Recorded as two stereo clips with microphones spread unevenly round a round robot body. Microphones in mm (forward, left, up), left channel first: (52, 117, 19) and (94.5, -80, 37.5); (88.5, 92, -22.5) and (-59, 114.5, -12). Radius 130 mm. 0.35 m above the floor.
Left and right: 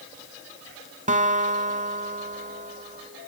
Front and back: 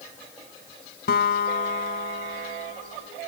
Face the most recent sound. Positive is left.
turn(degrees=-20)